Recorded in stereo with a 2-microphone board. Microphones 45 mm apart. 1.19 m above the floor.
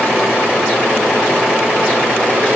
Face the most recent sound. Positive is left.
No sound to turn to.